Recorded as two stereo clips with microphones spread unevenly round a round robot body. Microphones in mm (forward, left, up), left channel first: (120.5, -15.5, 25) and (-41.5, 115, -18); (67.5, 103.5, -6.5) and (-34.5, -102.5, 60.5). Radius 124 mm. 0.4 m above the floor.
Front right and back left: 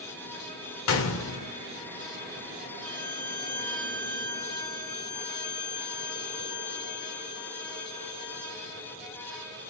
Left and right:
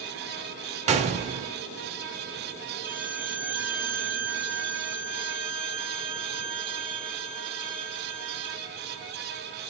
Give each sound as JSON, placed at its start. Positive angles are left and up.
{"t": 0.9, "sound": "a gunshot", "azimuth_deg": -45, "distance_m": 0.9}
{"t": 2.8, "sound": "a violin", "azimuth_deg": -20, "distance_m": 3.0}